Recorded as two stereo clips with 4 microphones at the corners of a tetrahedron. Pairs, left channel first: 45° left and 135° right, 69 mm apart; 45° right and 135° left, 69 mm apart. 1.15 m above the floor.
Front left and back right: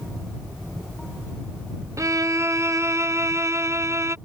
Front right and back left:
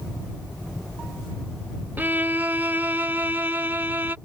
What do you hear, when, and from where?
2.0 s a violin: 165° right